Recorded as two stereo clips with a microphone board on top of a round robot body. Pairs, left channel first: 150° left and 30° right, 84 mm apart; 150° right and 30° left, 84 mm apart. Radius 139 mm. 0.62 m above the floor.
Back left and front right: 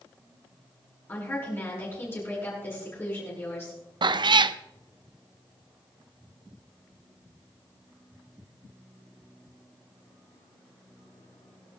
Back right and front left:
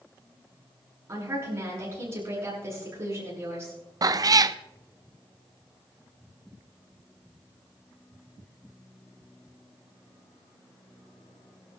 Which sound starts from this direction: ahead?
A cat meowing, at 4.0 s.